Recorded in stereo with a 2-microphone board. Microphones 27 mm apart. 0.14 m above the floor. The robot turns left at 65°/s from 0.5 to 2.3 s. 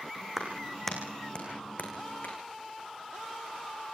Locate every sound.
0.4 s a clap: 15° right (ahead or behind), 7 m; by 2.4 s 75° left (ahead or behind), 7 m